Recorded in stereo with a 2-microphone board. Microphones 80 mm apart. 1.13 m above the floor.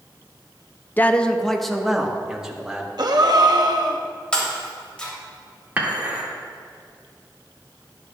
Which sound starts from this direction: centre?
Breaking glass, at 4.3 s.